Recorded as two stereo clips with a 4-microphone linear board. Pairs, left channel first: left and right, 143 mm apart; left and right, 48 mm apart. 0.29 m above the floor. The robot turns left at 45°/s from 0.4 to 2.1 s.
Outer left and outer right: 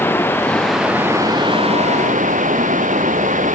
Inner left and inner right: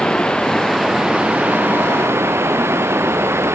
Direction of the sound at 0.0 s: 15° left.